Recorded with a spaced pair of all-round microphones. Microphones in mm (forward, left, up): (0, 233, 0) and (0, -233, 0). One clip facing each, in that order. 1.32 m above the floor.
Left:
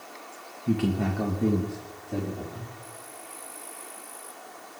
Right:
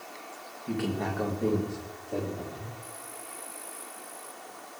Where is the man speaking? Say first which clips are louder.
Left 5 dB; 50° left (ahead or behind), 1.7 m; by 2.7 s 30° left (ahead or behind), 4 m.